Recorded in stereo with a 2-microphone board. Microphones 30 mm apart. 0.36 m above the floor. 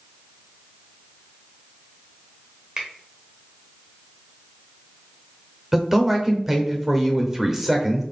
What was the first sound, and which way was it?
A finger snap, 30° right (ahead or behind).